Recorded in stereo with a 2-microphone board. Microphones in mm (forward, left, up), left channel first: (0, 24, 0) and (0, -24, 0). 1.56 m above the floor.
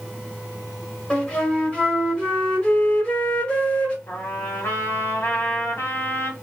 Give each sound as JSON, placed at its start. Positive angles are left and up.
{"t": 1.1, "sound": "a flute", "side_deg": 25, "distance_m": 1.4}
{"t": 4.1, "sound": "a trumpet", "side_deg": 60, "distance_m": 1.4}